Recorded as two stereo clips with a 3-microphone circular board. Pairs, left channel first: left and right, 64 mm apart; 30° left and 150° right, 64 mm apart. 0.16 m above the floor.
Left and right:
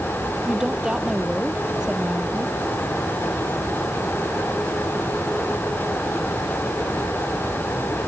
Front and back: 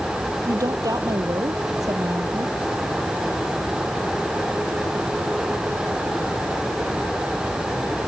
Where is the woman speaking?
170° right.